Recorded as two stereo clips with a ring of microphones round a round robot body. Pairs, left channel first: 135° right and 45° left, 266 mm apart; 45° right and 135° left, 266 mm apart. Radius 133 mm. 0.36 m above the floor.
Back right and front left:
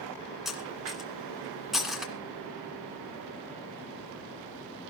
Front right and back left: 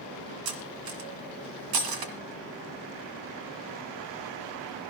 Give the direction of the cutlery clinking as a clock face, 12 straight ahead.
8 o'clock.